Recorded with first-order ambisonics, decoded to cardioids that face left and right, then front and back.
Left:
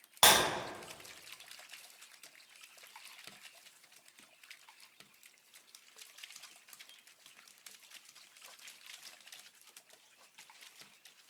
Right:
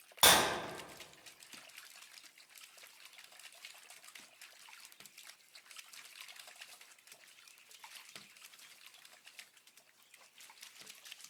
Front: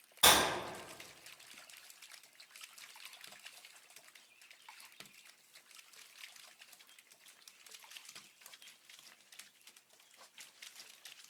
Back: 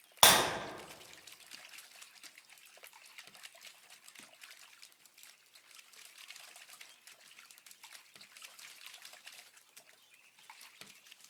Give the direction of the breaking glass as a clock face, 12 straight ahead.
7 o'clock.